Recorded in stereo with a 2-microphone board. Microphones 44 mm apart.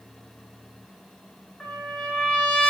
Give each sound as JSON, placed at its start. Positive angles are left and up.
{"t": 1.6, "sound": "a trumpet", "side_deg": 5, "distance_m": 1.6}